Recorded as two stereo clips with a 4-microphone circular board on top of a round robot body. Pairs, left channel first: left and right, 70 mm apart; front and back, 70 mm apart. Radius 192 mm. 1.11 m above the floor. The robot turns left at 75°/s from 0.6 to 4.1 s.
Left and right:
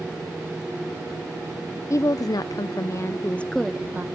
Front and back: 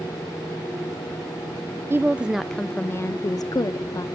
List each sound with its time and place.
1.9 s a woman speaking: 130° left, 0.5 m; by 4.0 s 30° right, 0.5 m